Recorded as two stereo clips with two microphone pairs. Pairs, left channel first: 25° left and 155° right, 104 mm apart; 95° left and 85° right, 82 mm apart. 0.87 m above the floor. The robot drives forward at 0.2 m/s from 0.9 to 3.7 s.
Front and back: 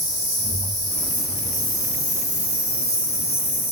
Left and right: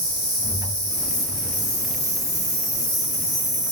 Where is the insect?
30° right, 1.4 m; by 3.7 s 50° right, 1.0 m.